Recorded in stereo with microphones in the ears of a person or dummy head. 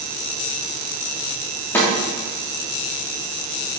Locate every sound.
1.7 s a snare drum: 10° left (ahead or behind), 2.5 m